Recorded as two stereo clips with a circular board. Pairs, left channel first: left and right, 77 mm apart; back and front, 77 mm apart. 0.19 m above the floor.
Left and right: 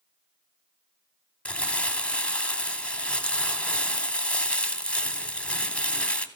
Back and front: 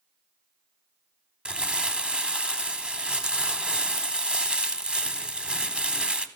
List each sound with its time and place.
1.4 s crumpling: 55° left, 0.7 m